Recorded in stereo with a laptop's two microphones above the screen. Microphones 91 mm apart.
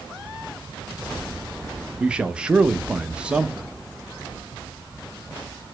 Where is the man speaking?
10° right (ahead or behind), 0.5 m.